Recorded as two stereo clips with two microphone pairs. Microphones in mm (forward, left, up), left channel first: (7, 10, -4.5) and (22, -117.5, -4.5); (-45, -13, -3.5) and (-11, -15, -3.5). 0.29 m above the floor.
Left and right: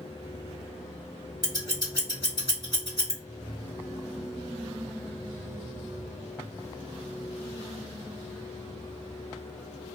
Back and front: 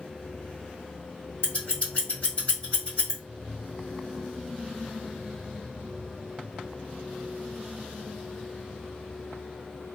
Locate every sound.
1.4 s scissors: 140° left, 1.9 m